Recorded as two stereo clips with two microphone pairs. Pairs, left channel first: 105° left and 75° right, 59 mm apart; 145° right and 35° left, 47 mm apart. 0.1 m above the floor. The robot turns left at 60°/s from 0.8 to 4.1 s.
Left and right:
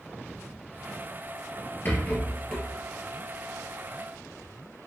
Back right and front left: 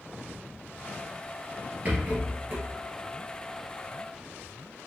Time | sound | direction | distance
1.9 | a rattle | 70° left | 1.6 m